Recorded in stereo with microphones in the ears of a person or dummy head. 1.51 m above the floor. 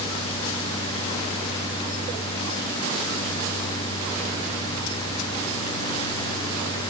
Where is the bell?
I don't hear a bell.